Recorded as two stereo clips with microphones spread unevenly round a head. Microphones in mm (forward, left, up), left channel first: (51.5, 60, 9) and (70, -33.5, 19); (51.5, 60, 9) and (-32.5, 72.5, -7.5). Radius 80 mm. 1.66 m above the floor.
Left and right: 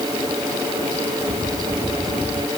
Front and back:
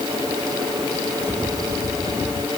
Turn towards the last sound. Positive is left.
No sound to turn to.